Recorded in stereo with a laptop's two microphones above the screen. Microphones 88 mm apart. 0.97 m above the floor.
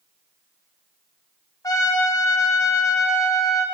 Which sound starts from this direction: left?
A trumpet, at 1.6 s.